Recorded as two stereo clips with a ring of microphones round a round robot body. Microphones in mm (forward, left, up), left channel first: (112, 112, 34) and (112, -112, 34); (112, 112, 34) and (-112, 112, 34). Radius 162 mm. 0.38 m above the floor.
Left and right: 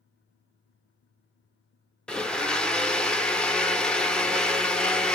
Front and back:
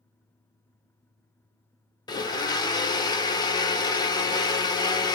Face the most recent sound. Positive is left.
turn(degrees=10)